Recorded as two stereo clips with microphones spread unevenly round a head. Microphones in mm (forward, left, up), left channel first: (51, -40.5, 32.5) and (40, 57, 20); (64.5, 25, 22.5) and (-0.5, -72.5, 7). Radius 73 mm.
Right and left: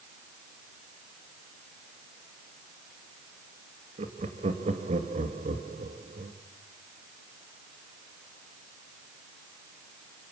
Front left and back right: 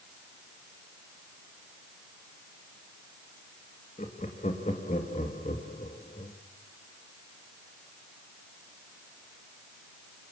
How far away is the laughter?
About 2.5 m.